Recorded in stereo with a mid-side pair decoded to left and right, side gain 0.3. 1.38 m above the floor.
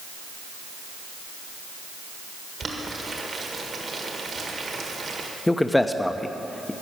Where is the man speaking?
20° left, 0.8 m.